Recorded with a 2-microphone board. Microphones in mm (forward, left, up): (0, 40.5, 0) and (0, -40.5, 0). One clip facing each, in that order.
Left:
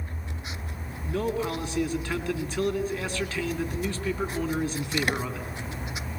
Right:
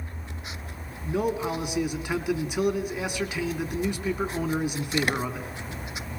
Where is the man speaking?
15° right (ahead or behind), 3 m.